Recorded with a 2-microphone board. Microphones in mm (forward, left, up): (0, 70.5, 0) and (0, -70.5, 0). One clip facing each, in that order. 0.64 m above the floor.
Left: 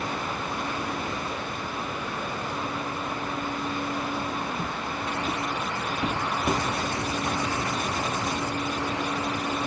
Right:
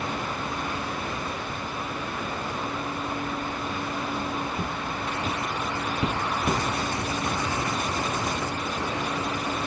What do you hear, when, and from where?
4.5 s footsteps: 55° right (ahead or behind), 1.7 m; by 6.6 s 10° left (ahead or behind), 0.7 m